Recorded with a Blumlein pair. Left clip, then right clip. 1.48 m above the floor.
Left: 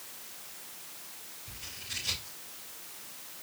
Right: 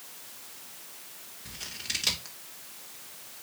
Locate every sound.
1.4 s scissors: 40° right, 3 m